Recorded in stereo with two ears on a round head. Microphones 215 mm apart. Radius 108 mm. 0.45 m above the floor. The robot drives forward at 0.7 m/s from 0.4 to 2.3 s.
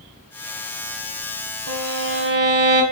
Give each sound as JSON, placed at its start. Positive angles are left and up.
{"t": 1.7, "sound": "a violin", "side_deg": -70, "distance_m": 0.6}